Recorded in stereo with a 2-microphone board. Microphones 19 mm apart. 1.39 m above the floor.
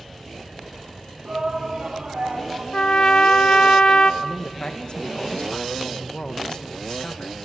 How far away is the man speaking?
About 1.8 m.